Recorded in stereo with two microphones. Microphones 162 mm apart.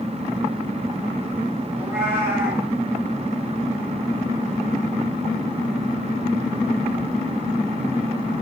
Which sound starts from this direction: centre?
A cat meowing, at 1.7 s.